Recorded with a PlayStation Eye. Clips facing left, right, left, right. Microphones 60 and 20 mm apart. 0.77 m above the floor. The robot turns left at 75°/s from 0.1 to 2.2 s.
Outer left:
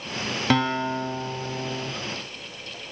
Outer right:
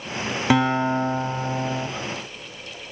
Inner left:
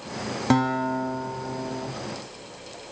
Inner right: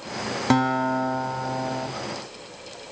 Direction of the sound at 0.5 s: 15° right.